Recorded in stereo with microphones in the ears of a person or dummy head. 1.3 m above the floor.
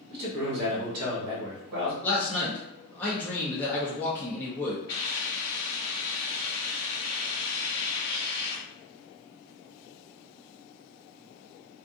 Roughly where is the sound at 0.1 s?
Right.